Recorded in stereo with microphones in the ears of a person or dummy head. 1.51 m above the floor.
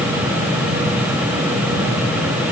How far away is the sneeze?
I don't hear a sneeze.